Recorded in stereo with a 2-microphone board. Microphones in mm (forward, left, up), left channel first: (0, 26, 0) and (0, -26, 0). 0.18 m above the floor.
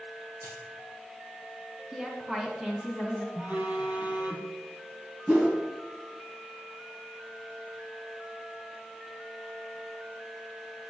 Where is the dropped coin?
65° right (ahead or behind), 3.5 m.